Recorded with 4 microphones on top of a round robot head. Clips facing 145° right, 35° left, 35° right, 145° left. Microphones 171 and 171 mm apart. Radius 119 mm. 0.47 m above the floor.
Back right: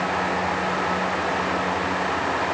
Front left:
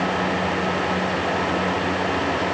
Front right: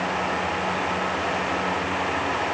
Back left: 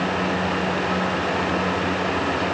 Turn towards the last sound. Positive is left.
No sound to turn to.